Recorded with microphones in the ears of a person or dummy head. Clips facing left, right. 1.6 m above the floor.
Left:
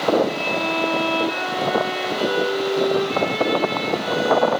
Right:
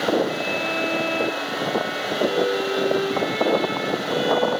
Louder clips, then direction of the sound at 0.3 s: Left 2 dB; 70° left (ahead or behind).